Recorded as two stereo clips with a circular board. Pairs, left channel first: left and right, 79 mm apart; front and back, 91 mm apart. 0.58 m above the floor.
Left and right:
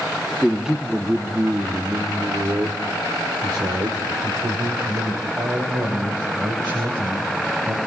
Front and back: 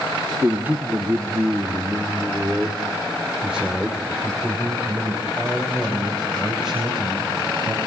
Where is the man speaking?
170° right, 1.3 m; by 7.8 s 95° right, 4.5 m.